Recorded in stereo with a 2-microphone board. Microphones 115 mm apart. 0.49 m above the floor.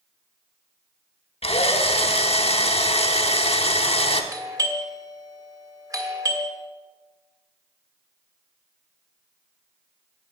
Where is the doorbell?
30° right (ahead or behind), 1.6 m.